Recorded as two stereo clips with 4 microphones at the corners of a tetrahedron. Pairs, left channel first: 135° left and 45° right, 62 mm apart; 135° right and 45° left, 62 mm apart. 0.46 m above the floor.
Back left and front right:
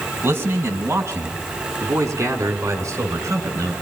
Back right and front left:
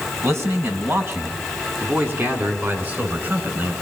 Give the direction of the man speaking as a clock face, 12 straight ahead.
12 o'clock.